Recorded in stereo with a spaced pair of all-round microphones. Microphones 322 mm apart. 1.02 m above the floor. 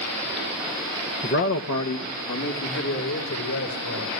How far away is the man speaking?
About 0.9 m.